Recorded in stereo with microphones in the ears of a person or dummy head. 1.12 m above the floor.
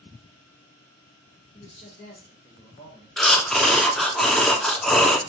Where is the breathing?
5° left (ahead or behind), 0.5 m.